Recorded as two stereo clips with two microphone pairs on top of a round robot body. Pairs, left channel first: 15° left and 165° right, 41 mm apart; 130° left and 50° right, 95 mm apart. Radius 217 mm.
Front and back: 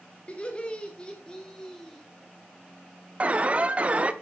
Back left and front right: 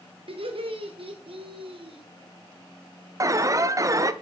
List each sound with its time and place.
0.3 s laughter: 40° right, 2.5 m; by 2.0 s 60° right, 2 m
3.2 s an alarm: 105° right, 1.0 m